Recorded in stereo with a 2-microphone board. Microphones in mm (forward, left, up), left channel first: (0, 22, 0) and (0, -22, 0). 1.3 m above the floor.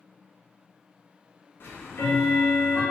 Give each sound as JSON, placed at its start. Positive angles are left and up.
{"t": 1.6, "sound": "ticking", "side_deg": 55, "distance_m": 1.7}